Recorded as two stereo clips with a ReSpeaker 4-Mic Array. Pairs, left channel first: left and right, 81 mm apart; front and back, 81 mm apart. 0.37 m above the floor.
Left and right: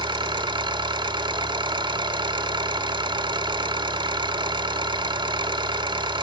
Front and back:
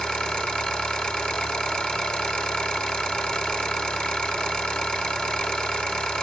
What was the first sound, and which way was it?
An engine running, 80° right.